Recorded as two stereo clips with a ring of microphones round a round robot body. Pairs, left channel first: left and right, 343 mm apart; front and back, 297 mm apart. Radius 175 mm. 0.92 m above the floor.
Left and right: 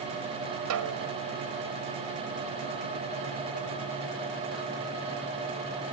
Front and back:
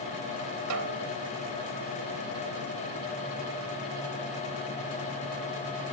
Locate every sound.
0.7 s a snare drum: 135° right